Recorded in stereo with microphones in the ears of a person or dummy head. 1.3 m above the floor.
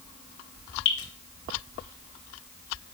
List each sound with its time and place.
0.8 s dripping: 60° left (ahead or behind), 1.5 m